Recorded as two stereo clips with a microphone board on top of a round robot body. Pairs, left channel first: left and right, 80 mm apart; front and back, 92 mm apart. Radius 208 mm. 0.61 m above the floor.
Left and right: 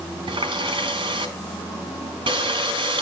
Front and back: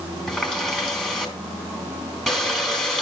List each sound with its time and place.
0.3 s a running tap: 90° right, 3 m